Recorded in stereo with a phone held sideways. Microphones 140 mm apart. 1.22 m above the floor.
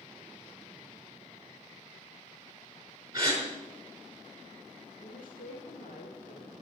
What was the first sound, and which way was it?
A gasp, 25° right (ahead or behind).